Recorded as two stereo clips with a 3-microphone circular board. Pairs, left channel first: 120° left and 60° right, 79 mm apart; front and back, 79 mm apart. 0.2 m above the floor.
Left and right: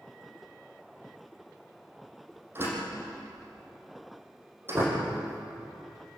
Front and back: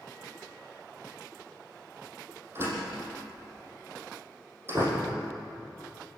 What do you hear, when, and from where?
2.5 s a door slam: 120° right, 6 m